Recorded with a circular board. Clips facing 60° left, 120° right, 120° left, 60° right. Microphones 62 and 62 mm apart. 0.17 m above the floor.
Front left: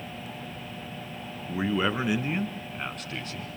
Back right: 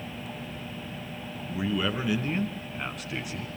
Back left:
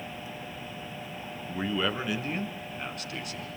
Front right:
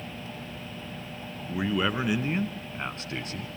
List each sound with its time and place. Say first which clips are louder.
1.5 s a man speaking: front left 2 dB, front right 2 dB; 15° left, 2.5 m; by 3.5 s 55° right, 2 m